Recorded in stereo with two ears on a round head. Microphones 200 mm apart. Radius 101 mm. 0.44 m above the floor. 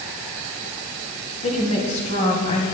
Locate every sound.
1.4 s a woman speaking: 30° left (ahead or behind), 4 m